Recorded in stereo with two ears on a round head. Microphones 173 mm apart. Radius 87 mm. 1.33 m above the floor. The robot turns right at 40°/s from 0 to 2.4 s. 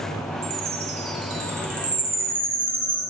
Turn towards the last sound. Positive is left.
turn(degrees=10)